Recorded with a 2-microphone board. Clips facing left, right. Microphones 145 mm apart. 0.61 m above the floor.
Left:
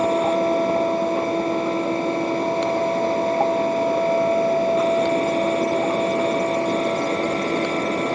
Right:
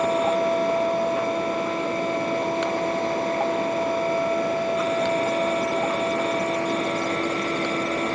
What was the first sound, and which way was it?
Only background noise.